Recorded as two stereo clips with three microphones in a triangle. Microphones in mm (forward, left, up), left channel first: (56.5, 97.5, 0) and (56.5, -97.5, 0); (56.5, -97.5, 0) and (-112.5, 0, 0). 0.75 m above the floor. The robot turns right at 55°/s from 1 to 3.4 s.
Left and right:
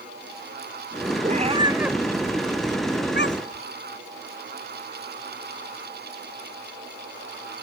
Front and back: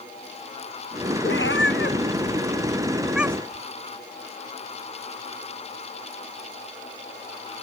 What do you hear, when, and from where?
1.2 s a cat meowing: 45° right; by 3.6 s 75° left